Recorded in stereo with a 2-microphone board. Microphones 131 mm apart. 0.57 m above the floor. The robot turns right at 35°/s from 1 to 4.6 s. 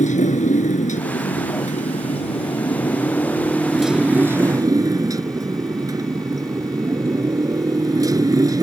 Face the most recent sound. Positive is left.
turn(degrees=-150)